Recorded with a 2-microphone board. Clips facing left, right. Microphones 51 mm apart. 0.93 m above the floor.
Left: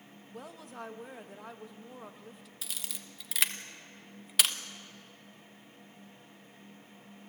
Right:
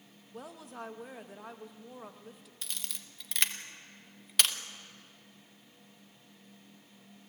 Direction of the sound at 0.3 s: Centre (ahead or behind).